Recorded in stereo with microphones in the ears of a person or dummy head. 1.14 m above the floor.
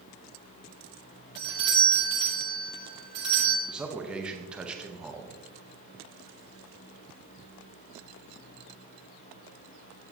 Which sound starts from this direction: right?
A doorbell, at 1.4 s.